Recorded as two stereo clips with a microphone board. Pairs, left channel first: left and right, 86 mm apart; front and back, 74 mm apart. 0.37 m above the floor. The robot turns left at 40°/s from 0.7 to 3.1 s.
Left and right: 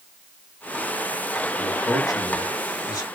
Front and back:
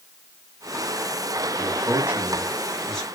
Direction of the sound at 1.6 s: 135° left.